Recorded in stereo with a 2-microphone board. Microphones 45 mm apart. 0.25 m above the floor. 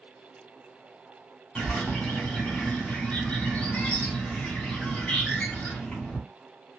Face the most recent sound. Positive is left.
turn(degrees=25)  # may be behind; listen again after turning